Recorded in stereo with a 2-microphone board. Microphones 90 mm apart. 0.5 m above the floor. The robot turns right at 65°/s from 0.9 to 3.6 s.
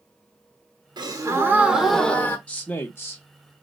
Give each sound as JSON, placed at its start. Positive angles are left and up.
{"t": 1.0, "sound": "a gasp", "azimuth_deg": -60, "distance_m": 0.6}
{"t": 2.5, "sound": "a man speaking", "azimuth_deg": 25, "distance_m": 0.9}